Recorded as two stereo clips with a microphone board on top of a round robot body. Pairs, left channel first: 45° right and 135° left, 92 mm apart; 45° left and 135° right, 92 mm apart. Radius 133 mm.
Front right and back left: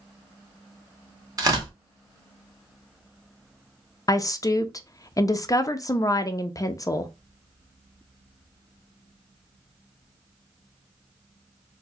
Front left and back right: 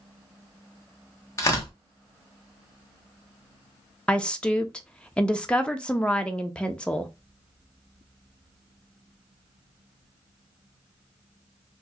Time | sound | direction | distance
1.4 | tearing paper | 95° left | 1.7 m
4.1 | a woman speaking | 30° right | 0.6 m